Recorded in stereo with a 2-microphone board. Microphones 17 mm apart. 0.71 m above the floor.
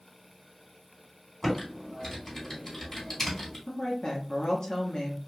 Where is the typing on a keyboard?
30° left (ahead or behind), 1.9 m.